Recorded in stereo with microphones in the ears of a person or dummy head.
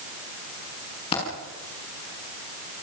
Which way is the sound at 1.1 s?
35° left (ahead or behind).